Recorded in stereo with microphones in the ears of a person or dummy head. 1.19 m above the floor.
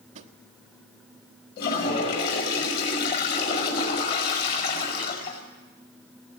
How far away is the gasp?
No gasp in this recording.